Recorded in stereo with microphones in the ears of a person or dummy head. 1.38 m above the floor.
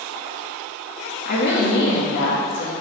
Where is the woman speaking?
60° left (ahead or behind), 2 m.